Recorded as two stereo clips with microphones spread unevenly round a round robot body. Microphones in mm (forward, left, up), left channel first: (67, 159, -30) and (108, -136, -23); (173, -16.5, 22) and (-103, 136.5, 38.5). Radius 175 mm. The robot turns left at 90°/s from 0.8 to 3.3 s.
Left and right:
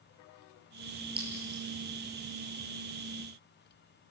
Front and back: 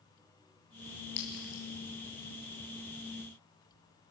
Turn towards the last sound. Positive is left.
turn(degrees=160)